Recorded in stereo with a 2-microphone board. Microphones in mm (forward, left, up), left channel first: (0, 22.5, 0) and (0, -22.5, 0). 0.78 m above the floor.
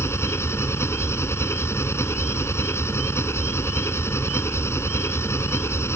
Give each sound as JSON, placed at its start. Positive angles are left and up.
{"t": 0.0, "sound": "an engine running", "side_deg": 85}